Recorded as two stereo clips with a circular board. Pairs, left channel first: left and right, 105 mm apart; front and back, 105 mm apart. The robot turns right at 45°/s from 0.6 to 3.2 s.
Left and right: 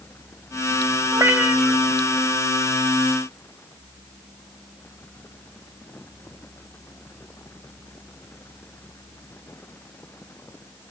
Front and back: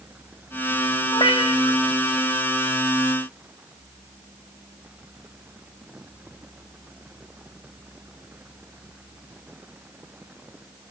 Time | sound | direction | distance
1.1 | a cat meowing | 30° right | 2 m